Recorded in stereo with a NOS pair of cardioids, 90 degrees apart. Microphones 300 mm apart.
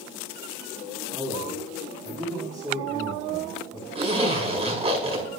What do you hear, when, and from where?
1.1 s a man speaking: 5° right, 8 m
4.0 s a zipper: 20° right, 5.5 m